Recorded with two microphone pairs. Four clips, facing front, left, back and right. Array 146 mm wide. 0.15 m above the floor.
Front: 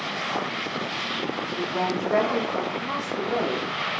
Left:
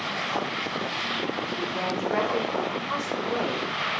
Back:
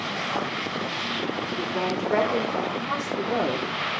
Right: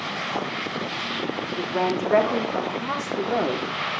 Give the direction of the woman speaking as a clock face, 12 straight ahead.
3 o'clock.